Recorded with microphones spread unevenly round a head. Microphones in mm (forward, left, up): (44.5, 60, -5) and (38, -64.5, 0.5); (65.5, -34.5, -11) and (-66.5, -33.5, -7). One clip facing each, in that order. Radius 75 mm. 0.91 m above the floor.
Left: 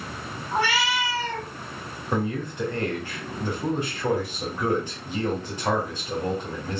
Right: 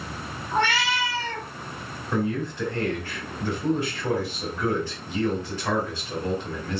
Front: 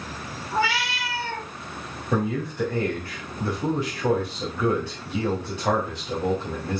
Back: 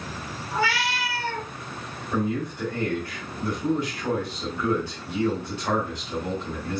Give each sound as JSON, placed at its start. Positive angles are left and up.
{"t": 0.5, "sound": "a cat meowing", "azimuth_deg": 5, "distance_m": 3.5}
{"t": 2.1, "sound": "a man speaking", "azimuth_deg": 15, "distance_m": 3.5}